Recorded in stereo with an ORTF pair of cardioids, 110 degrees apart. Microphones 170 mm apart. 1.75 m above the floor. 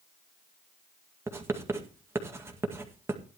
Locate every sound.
1.3 s writing: 15° right, 2 m